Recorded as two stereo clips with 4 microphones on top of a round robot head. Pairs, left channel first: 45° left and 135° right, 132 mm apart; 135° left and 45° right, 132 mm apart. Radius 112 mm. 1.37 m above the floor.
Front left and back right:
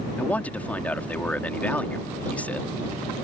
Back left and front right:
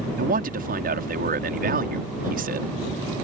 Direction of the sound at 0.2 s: 35° right.